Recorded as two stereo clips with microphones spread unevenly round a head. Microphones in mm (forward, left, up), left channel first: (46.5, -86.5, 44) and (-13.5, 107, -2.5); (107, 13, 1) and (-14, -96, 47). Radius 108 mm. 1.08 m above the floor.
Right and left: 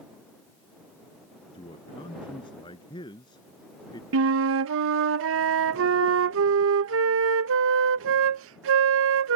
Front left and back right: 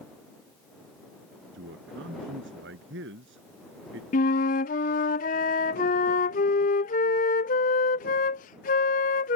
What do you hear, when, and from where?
1.5 s a man speaking: 140° right; by 4.0 s 145° right
4.1 s a flute: 90° left